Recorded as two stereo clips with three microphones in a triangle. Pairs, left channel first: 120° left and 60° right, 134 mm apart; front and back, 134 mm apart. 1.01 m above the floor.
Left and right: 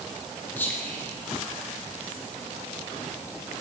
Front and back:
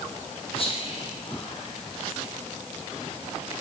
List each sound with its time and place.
0.6 s whispering: 45° left, 1.1 m